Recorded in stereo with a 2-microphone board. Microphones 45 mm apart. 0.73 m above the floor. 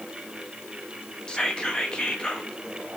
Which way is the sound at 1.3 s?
20° left (ahead or behind).